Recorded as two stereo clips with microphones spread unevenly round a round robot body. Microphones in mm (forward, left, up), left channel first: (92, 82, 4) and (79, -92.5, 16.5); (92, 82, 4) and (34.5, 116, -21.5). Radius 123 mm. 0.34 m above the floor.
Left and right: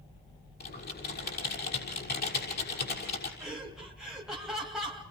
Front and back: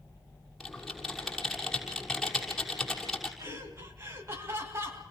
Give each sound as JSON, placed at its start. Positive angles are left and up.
{"t": 0.6, "sound": "typing on a keyboard", "azimuth_deg": 55, "distance_m": 6.0}
{"t": 3.4, "sound": "laughter", "azimuth_deg": 175, "distance_m": 2.5}